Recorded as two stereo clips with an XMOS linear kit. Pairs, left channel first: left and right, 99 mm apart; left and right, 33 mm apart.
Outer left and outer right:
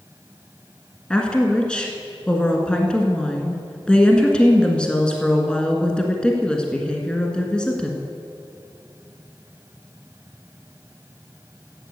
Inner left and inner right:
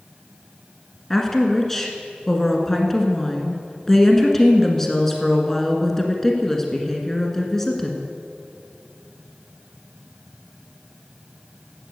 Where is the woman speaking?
10° left (ahead or behind), 1.4 m.